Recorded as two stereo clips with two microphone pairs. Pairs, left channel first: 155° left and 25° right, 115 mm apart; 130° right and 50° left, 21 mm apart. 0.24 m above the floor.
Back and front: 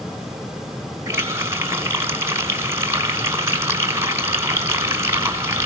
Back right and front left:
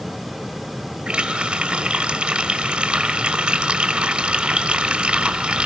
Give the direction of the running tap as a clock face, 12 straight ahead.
11 o'clock.